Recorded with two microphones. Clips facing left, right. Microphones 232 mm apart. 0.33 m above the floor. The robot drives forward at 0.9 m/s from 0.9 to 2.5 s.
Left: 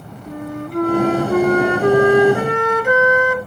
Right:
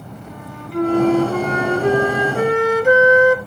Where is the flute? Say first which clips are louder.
Left 9 dB; 50° left (ahead or behind), 2 m; by 3.4 s 65° left (ahead or behind), 1.8 m.